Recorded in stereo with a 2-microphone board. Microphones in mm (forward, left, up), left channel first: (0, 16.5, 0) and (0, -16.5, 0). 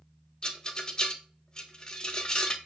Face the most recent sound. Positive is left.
turn(degrees=25)  # may be behind; listen again after turning